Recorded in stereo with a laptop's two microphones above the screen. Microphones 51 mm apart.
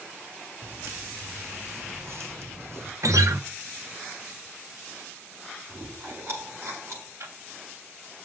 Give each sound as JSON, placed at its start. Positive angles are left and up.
{"t": 0.6, "sound": "footsteps", "side_deg": -60, "distance_m": 3.0}
{"t": 3.0, "sound": "a guitar", "side_deg": -80, "distance_m": 1.0}
{"t": 5.7, "sound": "chewing", "side_deg": -60, "distance_m": 7.0}
{"t": 7.2, "sound": "ticking", "side_deg": -65, "distance_m": 3.0}